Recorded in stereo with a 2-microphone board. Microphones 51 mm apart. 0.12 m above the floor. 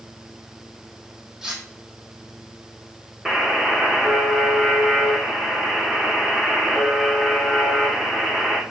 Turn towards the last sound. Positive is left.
turn(degrees=-10)  # may be behind; listen again after turning